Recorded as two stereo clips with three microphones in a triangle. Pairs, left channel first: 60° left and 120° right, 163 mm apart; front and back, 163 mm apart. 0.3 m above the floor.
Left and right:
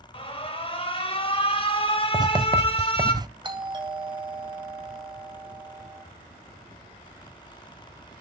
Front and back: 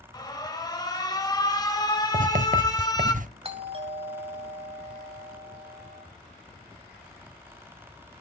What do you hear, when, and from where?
0.1 s an alarm: 45° left, 1.3 m
2.1 s writing: 175° right, 0.6 m
3.4 s a doorbell: 160° right, 1.7 m